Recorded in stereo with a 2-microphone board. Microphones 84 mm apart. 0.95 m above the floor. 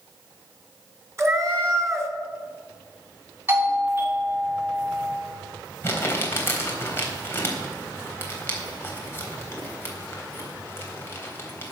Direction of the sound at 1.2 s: 35° right (ahead or behind).